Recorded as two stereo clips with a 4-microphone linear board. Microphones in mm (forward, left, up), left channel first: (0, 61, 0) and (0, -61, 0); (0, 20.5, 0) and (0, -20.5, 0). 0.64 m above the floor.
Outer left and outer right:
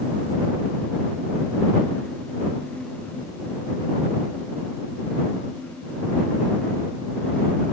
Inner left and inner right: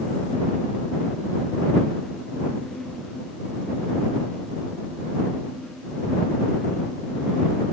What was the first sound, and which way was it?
Only background noise.